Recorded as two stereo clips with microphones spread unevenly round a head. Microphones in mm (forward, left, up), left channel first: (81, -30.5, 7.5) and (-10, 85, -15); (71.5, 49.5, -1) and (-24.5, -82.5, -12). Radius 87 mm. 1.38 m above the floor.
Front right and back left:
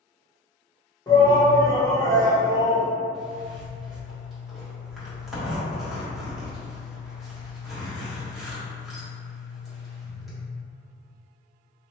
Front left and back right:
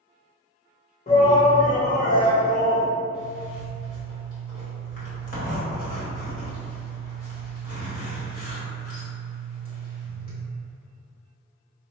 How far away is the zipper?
About 1.5 m.